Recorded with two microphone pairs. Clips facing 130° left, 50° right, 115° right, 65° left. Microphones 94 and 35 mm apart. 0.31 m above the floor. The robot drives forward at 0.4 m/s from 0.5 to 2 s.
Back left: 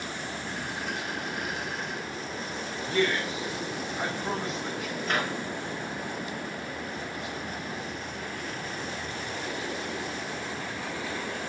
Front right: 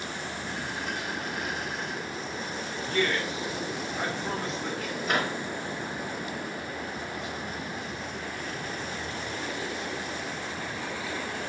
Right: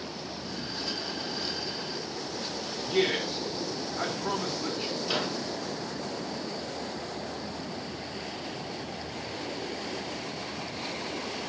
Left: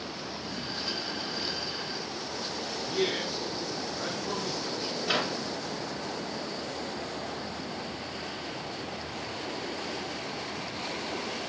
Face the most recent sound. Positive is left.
turn(degrees=35)